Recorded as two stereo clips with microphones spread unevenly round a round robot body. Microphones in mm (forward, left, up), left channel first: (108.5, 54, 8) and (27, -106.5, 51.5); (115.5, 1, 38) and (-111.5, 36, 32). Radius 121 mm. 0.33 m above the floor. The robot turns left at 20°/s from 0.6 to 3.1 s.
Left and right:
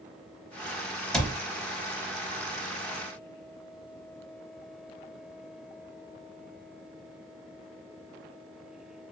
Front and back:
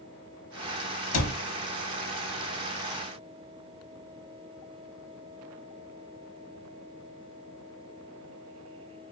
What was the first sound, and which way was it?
A cupboard door, 20° right.